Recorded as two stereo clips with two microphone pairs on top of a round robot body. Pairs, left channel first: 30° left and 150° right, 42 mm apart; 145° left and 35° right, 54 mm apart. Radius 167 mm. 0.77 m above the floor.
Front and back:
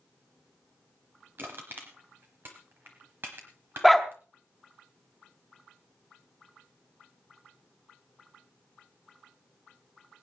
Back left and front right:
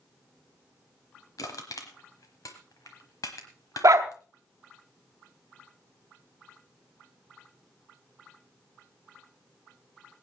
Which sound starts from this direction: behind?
Crushing, at 1.4 s.